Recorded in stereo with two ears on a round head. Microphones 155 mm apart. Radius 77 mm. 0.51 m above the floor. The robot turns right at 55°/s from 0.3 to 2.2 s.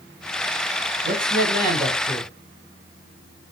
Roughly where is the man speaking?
Right.